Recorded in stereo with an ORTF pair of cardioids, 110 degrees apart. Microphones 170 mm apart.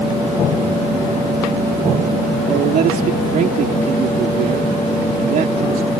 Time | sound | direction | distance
2.5 | a man speaking | 60° right | ?